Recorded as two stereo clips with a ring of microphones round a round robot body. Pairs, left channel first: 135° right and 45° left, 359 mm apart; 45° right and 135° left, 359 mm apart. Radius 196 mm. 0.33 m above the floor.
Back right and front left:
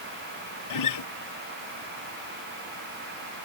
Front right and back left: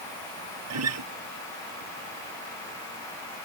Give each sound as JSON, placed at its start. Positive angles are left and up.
{"t": 0.7, "sound": "a guitar", "azimuth_deg": -175}